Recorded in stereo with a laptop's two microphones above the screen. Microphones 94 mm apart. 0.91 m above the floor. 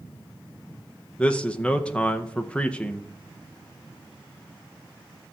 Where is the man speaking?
10° left (ahead or behind), 0.7 m.